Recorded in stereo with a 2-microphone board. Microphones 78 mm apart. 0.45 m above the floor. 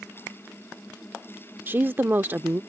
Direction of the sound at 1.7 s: 25° right (ahead or behind).